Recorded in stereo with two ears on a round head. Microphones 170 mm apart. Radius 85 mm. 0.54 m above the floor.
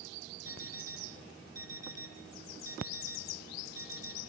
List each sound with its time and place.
0.5 s an alarm clock: 15° right (ahead or behind), 4.5 m